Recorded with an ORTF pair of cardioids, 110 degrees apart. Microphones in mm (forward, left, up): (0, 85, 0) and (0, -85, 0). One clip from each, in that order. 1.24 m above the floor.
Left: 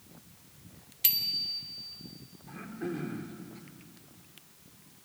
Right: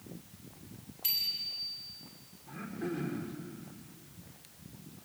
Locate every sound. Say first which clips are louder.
1.0 s a bicycle bell: left 3 dB; 60° left, 2.5 m
2.5 s throat clearing: left 1 dB; 10° left, 3 m